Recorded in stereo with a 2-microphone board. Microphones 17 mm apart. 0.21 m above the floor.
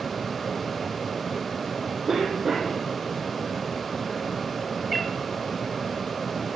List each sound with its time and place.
2.1 s a cough: 25° right (ahead or behind), 9 m
4.9 s a cat meowing: 5° right (ahead or behind), 2.5 m